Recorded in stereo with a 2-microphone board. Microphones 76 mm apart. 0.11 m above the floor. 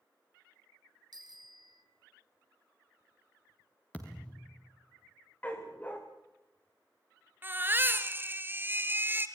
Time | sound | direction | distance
1.1 | a bicycle bell | 65° right (ahead or behind) | 3.5 m
3.9 | a thud | 15° left (ahead or behind) | 5 m
5.4 | a dog barking | 20° left (ahead or behind) | 5 m
7.4 | a baby crying | 25° right (ahead or behind) | 1.8 m